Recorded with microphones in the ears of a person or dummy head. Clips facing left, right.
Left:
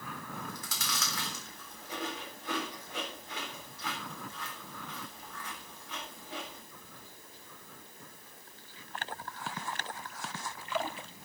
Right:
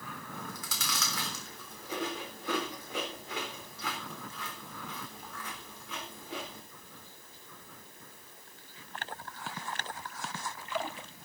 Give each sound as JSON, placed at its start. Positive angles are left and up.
{"t": 0.3, "sound": "chewing", "side_deg": -70, "distance_m": 3.5}